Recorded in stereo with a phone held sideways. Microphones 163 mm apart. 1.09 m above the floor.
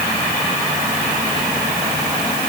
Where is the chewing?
No chewing in this recording.